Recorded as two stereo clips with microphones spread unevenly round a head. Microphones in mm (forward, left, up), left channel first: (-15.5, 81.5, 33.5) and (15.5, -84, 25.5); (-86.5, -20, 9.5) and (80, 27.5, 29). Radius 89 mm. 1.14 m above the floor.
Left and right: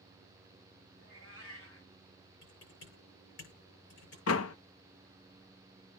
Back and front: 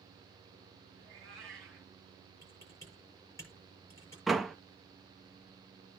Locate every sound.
1.0 s a cat meowing: 105° left, 5 m
2.4 s typing on a keyboard: 120° left, 7.5 m
4.3 s a door slam: 105° left, 0.5 m